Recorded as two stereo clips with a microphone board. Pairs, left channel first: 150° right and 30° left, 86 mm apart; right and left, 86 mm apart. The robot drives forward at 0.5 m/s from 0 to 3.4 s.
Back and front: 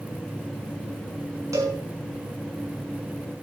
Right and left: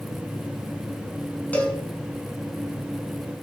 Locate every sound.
1.5 s a cowbell: 20° right, 3.5 m